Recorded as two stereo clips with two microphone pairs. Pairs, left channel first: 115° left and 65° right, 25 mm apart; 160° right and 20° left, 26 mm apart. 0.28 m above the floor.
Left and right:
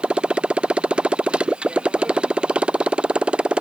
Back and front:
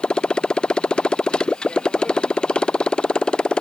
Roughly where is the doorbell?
No doorbell in this recording.